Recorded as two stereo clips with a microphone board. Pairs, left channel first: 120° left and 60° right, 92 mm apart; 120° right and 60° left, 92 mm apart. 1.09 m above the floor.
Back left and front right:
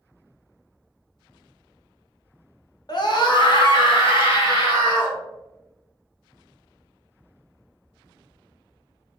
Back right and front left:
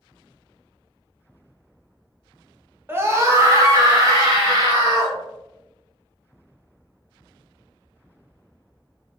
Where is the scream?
115° left, 0.7 m; by 5.2 s 100° left, 2.0 m.